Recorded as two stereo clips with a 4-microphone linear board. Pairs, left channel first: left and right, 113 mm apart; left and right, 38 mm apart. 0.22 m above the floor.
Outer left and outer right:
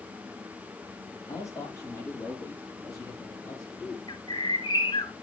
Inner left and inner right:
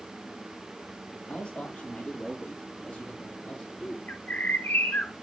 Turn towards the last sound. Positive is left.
turn(degrees=40)  # may be behind; listen again after turning